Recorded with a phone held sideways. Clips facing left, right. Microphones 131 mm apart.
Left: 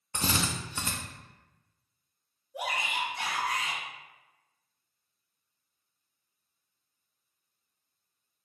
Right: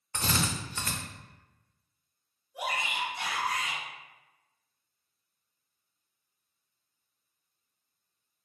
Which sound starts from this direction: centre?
A drill, at 0.1 s.